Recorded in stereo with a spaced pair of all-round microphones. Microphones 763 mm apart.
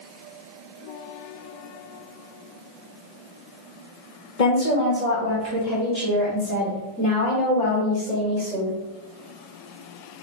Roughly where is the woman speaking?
Left.